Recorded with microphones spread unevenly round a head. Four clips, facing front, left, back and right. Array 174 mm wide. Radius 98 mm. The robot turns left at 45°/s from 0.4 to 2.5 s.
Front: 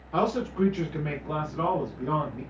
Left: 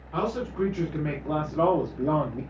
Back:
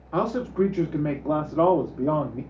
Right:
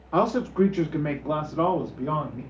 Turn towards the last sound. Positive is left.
turn(degrees=145)